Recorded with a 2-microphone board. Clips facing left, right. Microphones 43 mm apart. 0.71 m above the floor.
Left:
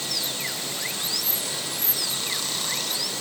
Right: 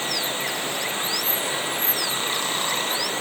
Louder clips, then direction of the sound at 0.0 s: Right 5 dB; 35° right (ahead or behind).